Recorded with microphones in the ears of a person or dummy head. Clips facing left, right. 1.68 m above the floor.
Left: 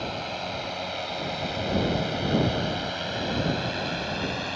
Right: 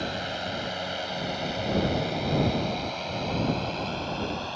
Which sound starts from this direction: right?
A drone, at 0.0 s.